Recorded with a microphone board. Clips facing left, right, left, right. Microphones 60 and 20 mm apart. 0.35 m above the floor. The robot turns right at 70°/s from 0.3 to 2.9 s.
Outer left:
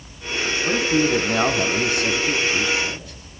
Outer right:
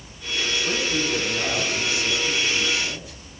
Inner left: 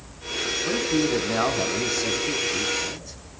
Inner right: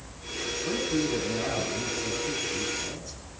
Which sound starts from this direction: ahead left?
A man speaking, at 0.7 s.